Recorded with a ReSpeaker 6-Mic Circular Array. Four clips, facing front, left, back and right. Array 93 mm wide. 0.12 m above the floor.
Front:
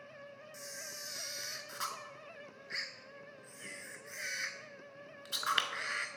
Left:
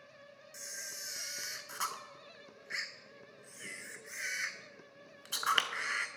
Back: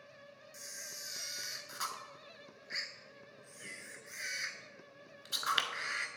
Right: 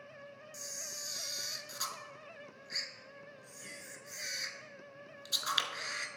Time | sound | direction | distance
0.5 | a camera shutter | 85° left | 0.5 m